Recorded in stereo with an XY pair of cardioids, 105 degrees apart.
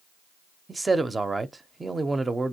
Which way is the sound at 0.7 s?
20° right.